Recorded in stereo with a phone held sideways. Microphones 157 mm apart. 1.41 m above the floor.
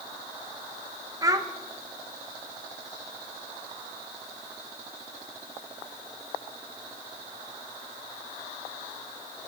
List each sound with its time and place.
1.2 s a child speaking: 20° right (ahead or behind), 0.6 m